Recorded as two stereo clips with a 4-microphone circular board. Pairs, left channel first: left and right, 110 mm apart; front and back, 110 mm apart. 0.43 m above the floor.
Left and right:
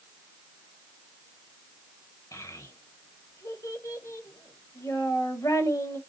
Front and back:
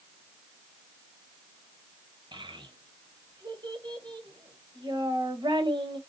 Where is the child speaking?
145° left, 1.4 m.